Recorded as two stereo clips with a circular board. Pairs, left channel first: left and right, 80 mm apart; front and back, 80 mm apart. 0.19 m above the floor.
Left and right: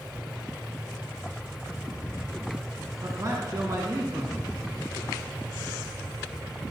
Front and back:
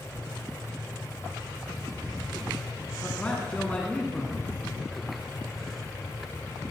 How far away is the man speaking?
About 2 m.